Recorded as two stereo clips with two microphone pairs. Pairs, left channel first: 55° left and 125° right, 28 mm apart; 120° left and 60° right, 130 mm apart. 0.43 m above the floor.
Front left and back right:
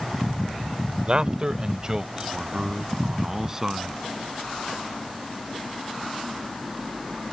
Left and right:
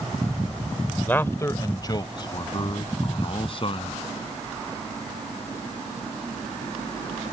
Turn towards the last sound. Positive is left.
turn(degrees=160)